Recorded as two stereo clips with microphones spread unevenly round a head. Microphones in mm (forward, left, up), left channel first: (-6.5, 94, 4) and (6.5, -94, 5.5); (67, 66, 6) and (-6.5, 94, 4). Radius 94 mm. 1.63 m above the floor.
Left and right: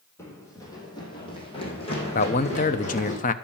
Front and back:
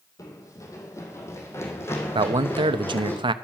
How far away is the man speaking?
About 1.0 m.